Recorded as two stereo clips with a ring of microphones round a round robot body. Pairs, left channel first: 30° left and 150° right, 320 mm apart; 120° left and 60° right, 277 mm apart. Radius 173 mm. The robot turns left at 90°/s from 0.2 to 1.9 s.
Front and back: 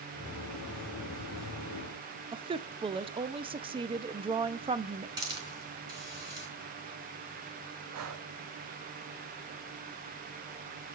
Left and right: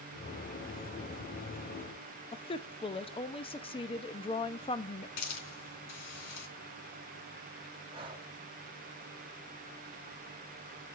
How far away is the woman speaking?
About 0.6 m.